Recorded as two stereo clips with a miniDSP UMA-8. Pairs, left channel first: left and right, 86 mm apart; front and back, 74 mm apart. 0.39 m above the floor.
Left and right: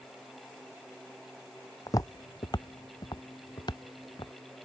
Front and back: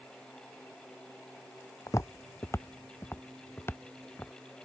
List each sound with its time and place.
1.9 s footsteps: 45° left; by 4.3 s 60° left